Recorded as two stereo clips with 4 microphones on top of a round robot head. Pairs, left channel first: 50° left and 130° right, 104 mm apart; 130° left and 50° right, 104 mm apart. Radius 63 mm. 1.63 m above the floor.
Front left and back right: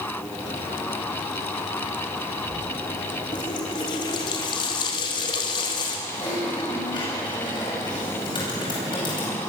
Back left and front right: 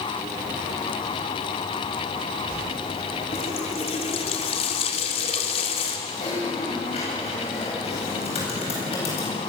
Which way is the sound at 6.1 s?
100° left.